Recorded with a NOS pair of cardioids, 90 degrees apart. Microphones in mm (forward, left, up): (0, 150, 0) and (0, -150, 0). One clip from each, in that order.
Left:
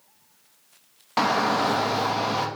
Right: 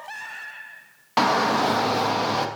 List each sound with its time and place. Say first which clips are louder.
1.2 s a shout: right 2 dB; 15° right, 2 m